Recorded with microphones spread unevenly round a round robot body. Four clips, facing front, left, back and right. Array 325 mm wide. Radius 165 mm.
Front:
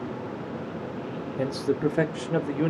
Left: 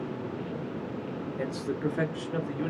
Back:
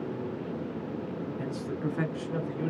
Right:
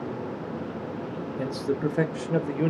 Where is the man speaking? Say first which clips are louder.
Right 5 dB, front 12 dB; 5° right, 1.3 m; by 2.7 s 45° right, 1.5 m.